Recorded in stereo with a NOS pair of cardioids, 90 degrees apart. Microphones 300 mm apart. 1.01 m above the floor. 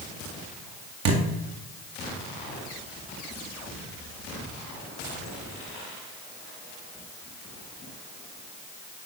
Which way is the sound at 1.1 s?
65° right.